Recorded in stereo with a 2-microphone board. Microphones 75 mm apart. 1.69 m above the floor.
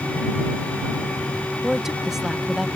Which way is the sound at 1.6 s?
5° right (ahead or behind).